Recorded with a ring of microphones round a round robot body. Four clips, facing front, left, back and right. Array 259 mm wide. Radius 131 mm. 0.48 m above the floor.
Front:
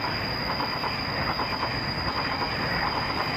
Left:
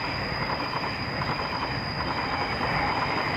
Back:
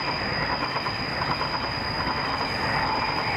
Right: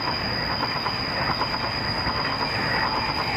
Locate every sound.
0.0 s an insect: 85° right, 7 m